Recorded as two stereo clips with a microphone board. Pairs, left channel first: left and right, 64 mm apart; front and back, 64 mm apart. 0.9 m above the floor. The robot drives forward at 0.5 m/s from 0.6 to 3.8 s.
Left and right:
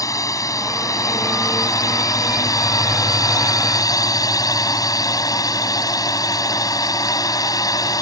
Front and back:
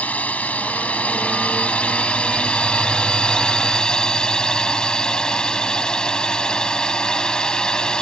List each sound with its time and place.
0.0 s a drone: 65° left; by 8.0 s 75° left